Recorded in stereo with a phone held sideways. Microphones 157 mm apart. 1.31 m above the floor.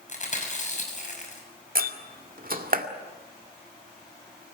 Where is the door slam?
60° right (ahead or behind), 2 m.